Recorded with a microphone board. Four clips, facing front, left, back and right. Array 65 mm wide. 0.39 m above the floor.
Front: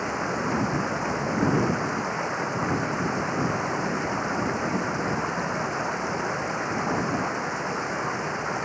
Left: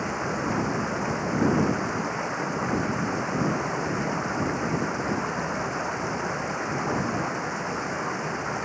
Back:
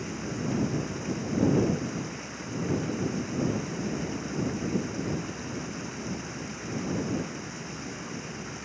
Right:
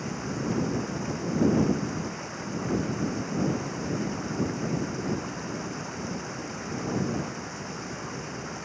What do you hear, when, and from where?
0.0 s running water: 30° left